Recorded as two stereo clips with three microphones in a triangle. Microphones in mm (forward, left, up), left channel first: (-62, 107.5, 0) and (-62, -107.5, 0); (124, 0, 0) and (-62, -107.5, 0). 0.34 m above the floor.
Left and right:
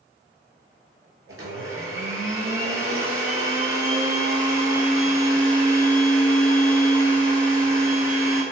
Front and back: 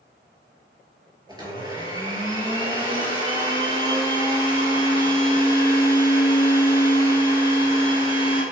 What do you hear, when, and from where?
1.3 s a blender: 75° right, 1.0 m